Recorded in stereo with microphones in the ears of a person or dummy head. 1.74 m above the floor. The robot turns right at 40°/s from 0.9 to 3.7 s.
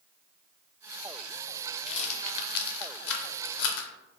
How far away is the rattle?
About 0.5 m.